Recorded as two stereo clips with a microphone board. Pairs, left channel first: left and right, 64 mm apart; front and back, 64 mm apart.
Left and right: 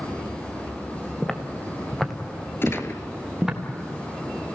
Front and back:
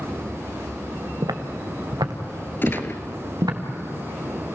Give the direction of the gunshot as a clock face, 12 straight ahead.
10 o'clock.